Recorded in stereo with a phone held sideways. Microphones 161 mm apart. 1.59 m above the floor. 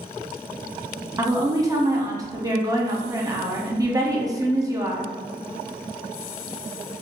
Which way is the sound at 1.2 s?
20° right (ahead or behind).